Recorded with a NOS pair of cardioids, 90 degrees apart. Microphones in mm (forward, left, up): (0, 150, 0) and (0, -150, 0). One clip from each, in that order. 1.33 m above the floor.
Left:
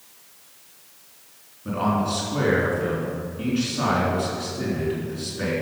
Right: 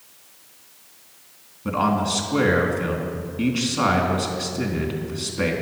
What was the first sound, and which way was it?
A man speaking, 55° right.